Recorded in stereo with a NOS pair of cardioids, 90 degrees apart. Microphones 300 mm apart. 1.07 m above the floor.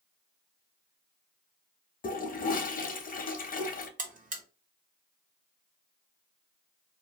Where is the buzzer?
25° right, 0.9 m.